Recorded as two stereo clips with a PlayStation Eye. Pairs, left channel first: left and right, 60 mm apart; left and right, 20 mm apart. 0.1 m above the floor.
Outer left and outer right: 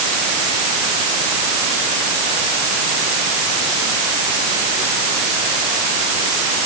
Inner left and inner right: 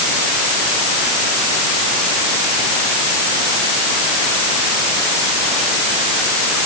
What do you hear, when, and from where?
Only background noise.